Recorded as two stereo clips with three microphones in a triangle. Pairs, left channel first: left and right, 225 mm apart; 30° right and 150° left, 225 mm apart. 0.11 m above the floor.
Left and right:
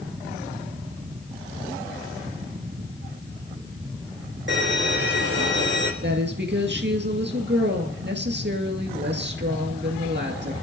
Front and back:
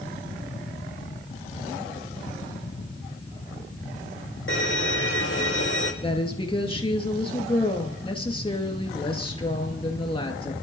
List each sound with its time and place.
4.5 s a violin: 55° right, 2.5 m
6.0 s a woman speaking: 90° right, 2 m